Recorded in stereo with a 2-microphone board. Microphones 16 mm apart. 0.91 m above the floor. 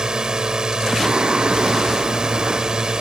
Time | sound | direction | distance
0.0 | a drone | 45° right (ahead or behind) | ?
1.0 | singing | 55° right (ahead or behind) | ?